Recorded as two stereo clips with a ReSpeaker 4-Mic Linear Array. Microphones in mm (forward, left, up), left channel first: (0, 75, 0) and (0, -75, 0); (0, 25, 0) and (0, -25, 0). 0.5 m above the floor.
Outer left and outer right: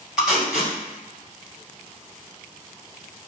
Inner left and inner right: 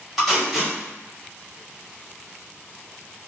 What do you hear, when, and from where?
0.2 s tape being pulled: 5° right (ahead or behind), 1.6 m